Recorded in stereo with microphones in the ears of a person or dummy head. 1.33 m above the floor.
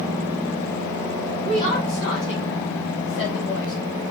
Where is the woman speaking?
25° left (ahead or behind), 1.3 m; by 3.7 s 75° left (ahead or behind), 2 m.